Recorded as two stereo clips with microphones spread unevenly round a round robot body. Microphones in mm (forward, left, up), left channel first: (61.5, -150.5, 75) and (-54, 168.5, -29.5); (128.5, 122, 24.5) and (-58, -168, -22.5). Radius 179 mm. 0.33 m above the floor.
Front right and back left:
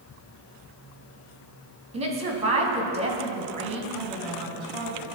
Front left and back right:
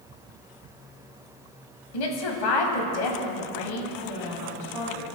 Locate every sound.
1.9 s a woman speaking: 50° left, 2.5 m
3.9 s a woman speaking: 100° left, 3 m